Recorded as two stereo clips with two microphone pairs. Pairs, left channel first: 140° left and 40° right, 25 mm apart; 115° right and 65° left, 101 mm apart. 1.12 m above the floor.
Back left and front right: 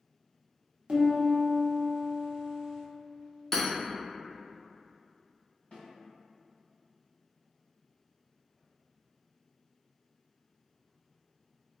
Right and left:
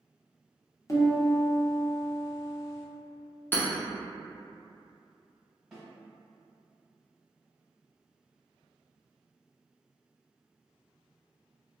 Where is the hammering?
175° right, 0.7 m.